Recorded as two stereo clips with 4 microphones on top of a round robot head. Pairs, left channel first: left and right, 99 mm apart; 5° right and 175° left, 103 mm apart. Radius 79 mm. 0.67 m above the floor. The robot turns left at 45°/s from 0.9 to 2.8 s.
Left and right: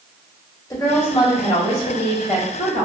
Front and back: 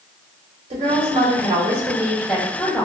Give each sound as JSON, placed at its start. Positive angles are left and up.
{"t": 0.7, "sound": "a woman speaking", "azimuth_deg": 145, "distance_m": 1.7}